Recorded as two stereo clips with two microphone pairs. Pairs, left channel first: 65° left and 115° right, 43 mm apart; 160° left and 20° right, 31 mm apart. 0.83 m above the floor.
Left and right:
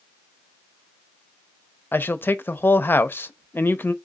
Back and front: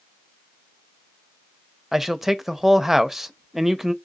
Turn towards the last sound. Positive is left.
turn(degrees=65)